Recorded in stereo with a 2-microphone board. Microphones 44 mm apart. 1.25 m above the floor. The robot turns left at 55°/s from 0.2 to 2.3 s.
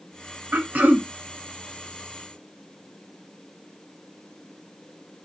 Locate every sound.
0.5 s throat clearing: 110° right, 0.7 m; by 1.1 s 145° right, 0.7 m